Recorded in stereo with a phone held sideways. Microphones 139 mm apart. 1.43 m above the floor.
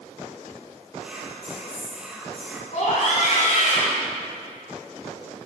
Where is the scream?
65° left (ahead or behind), 4 m.